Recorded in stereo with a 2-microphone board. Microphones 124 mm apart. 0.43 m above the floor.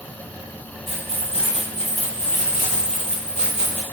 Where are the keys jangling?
50° right (ahead or behind), 2 m; by 3.8 s 60° right (ahead or behind), 1.6 m.